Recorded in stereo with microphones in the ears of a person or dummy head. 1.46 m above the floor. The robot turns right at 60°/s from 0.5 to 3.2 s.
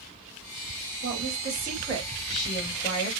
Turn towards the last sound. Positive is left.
turn(degrees=55)